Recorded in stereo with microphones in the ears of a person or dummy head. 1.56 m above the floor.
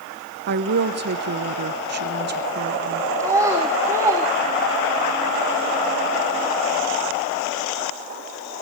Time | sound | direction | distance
0.5 | a woman speaking | 55° right (ahead or behind) | 1.1 m
3.2 | a child speaking | 15° right (ahead or behind) | 1.6 m